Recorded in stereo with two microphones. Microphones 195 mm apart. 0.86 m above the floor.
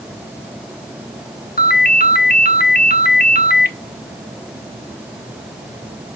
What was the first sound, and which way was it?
A ringtone, 50° left (ahead or behind).